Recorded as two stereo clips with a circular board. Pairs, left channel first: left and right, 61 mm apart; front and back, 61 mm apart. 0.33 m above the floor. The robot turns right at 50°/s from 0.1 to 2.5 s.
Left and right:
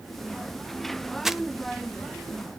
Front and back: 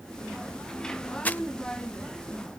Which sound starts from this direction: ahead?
Crumpling, at 1.2 s.